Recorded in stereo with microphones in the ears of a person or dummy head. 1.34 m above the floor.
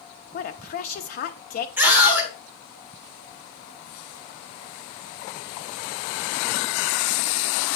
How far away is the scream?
About 2.5 m.